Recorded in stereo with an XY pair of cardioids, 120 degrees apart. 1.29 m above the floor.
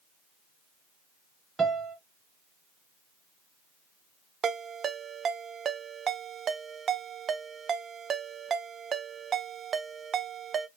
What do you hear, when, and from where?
1.6 s a piano: 25° right, 0.8 m
4.4 s a ringtone: 40° right, 0.6 m